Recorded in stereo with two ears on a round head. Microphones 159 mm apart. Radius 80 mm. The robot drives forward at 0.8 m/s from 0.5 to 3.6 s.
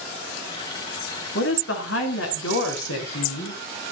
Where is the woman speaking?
70° left (ahead or behind), 5 m; by 3.6 s 80° left, 5 m.